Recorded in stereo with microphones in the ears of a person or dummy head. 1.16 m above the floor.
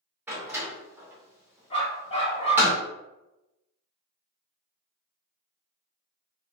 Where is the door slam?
10° right (ahead or behind), 0.9 m.